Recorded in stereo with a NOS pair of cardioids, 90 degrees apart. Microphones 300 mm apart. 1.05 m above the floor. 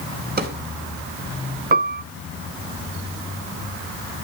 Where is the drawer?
30° right, 3.5 m.